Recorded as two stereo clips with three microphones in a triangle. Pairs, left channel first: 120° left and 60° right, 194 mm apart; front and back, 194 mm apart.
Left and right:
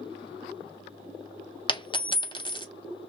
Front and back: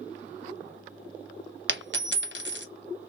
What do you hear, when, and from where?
1.7 s a dropped coin: 175° right, 0.5 m